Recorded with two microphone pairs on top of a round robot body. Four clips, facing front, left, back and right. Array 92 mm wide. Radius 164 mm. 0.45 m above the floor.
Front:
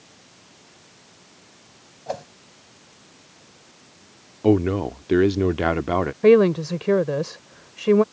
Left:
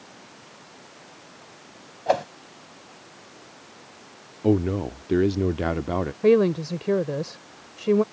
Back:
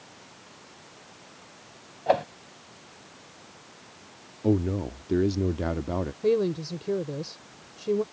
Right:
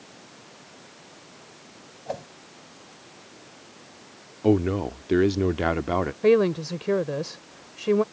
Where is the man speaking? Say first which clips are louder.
Right 1 dB, front 7 dB; 20° right.